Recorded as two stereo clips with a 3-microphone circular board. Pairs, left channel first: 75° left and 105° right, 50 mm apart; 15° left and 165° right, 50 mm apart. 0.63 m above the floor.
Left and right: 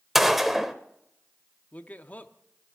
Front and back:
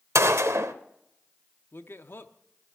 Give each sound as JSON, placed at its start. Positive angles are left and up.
{"t": 0.1, "sound": "a gunshot", "azimuth_deg": 170, "distance_m": 0.7}
{"t": 1.7, "sound": "a man speaking", "azimuth_deg": 25, "distance_m": 0.9}